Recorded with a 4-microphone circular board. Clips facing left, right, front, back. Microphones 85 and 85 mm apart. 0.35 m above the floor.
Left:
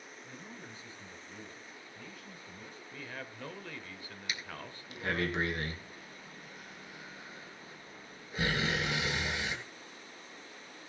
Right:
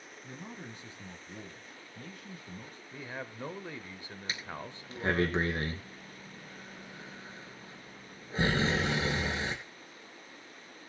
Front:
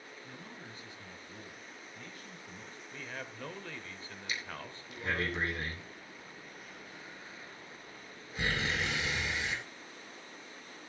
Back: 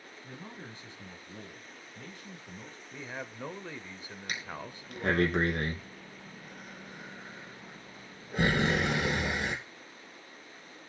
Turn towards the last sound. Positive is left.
turn(degrees=-145)